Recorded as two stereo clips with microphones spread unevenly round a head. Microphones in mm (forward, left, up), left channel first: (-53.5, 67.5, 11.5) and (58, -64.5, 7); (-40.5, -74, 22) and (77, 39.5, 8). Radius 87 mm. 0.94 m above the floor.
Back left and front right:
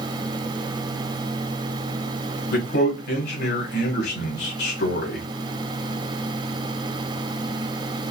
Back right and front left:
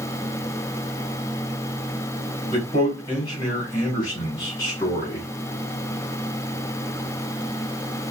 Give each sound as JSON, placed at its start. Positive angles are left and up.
{"t": 2.5, "sound": "a man speaking", "azimuth_deg": 155, "distance_m": 2.0}